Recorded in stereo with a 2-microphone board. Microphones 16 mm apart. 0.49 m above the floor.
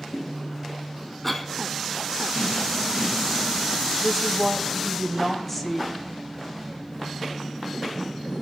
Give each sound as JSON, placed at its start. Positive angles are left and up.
{"t": 1.2, "sound": "a cough", "side_deg": 10, "distance_m": 1.1}
{"t": 4.0, "sound": "a woman speaking", "side_deg": 10, "distance_m": 2.0}